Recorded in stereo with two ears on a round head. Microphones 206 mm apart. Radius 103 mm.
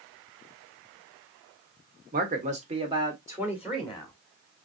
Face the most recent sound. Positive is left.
turn(degrees=5)  # may be behind; listen again after turning